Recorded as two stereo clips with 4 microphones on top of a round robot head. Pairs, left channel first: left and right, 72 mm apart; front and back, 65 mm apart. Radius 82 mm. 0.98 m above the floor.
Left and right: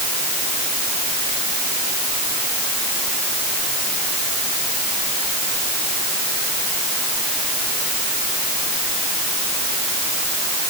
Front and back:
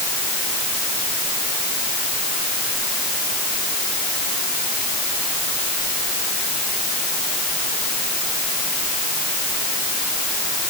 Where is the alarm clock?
No alarm clock in this recording.